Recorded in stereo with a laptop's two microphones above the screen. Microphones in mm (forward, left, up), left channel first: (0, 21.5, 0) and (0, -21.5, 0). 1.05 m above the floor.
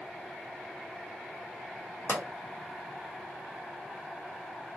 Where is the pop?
80° left, 1.2 m.